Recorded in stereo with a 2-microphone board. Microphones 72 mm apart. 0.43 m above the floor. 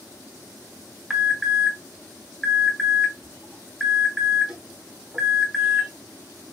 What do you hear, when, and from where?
1.1 s an alarm: 10° right (ahead or behind), 0.9 m